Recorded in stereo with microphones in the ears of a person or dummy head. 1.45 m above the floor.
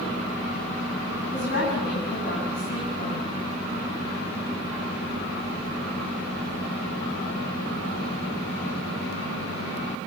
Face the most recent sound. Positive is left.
turn(degrees=45)  # may be behind; listen again after turning